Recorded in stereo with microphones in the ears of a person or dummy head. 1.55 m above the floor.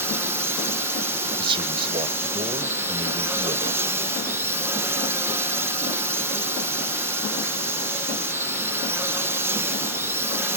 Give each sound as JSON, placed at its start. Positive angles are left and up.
{"t": 0.0, "sound": "a drone", "side_deg": -10}
{"t": 1.4, "sound": "a man speaking", "side_deg": -25}